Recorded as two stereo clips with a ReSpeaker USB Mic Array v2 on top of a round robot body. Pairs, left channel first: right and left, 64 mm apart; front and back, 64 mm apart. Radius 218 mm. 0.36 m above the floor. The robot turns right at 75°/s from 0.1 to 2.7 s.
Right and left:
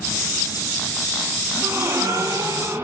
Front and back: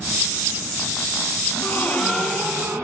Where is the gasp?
50° left, 4 m; by 2.9 s 140° left, 4 m.